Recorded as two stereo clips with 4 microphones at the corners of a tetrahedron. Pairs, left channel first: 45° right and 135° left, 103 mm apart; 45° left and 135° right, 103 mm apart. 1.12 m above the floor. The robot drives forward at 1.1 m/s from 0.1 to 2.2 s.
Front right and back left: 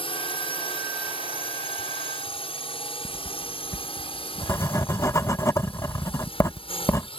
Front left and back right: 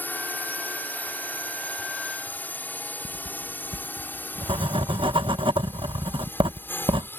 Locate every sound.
0.0 s a drone: 25° right
3.0 s writing: 105° right